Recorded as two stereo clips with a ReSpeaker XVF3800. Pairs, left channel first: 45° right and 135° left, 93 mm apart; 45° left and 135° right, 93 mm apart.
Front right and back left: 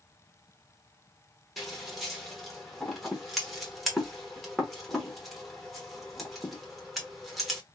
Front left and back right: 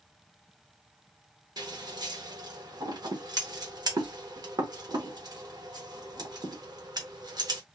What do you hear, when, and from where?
1.6 s scissors: 135° right, 1.1 m